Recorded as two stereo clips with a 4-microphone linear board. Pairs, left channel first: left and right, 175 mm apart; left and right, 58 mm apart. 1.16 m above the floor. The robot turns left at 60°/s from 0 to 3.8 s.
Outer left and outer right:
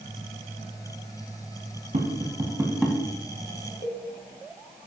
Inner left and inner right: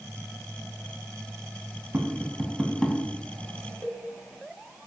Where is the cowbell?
40° left (ahead or behind), 1.9 m.